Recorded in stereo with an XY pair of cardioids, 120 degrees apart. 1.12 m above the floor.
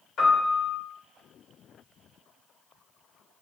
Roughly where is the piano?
Ahead left.